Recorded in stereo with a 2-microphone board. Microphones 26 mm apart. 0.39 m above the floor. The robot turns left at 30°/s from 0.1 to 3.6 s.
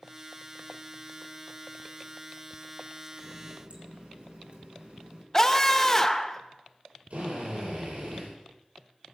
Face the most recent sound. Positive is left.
turn(degrees=-80)